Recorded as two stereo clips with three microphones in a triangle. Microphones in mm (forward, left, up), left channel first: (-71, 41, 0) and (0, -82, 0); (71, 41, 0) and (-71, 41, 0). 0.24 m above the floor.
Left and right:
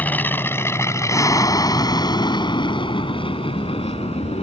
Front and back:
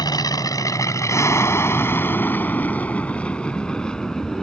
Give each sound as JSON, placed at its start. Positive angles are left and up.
{"t": 0.0, "sound": "an aircraft", "azimuth_deg": 50}